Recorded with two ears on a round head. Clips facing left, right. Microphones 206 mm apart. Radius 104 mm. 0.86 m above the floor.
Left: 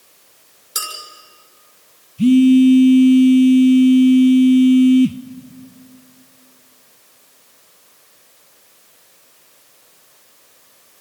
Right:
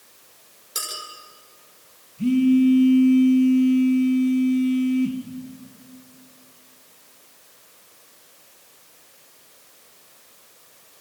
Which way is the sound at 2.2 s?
45° left (ahead or behind).